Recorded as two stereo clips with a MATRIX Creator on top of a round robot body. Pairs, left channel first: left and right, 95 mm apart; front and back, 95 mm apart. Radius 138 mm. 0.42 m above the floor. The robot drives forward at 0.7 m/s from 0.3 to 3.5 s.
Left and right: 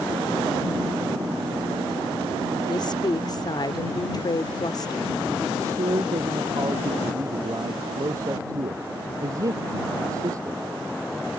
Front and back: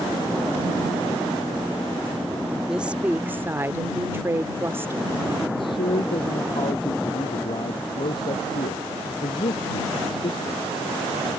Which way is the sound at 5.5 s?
35° right.